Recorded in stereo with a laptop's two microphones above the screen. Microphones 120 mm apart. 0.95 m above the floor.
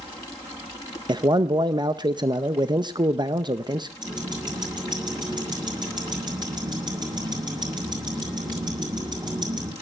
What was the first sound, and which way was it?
A man speaking, 35° right (ahead or behind).